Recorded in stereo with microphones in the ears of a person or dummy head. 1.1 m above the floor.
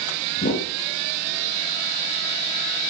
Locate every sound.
0.4 s a whoosh: 45° left (ahead or behind), 0.8 m